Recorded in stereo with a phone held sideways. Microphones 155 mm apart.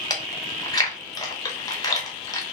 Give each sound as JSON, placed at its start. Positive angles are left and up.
{"t": 0.1, "sound": "chewing", "side_deg": 25, "distance_m": 0.9}